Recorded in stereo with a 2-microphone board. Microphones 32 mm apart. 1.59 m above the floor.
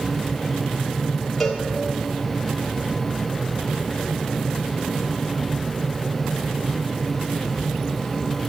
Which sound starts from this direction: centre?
A cowbell, at 1.4 s.